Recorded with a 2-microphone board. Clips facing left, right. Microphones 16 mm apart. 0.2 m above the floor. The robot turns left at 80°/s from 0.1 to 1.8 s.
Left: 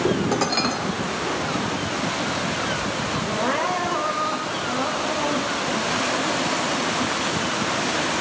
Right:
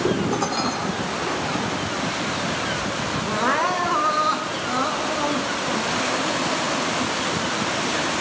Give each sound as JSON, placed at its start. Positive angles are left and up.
{"t": 0.3, "sound": "dishes clattering", "azimuth_deg": 55, "distance_m": 2.5}
{"t": 3.2, "sound": "crying", "side_deg": -35, "distance_m": 2.5}